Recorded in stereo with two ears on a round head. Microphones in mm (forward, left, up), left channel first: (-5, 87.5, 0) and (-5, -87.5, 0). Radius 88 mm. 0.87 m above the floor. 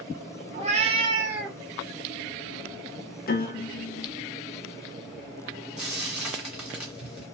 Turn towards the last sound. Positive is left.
turn(degrees=-5)  # may be behind; listen again after turning